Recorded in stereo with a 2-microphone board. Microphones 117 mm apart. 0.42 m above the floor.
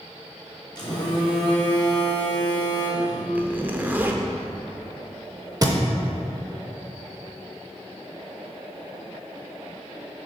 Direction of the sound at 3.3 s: 15° right (ahead or behind).